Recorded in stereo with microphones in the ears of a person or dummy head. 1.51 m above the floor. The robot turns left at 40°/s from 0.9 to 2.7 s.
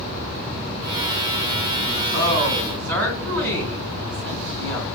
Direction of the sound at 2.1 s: 75° right (ahead or behind).